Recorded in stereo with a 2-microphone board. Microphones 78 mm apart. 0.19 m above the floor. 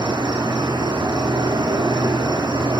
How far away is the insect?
About 1.0 m.